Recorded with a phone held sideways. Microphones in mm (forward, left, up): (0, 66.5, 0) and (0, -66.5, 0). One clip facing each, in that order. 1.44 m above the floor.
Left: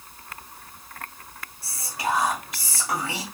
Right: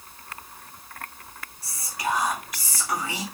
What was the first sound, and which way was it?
Whispering, 25° left (ahead or behind).